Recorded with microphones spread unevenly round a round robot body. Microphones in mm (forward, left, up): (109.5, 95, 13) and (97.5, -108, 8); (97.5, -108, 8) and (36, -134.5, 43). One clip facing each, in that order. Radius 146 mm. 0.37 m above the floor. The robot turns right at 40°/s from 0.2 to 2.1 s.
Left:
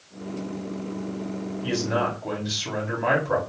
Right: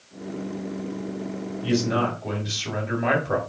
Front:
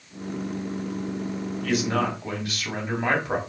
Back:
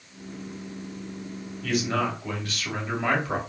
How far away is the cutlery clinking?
I don't hear cutlery clinking.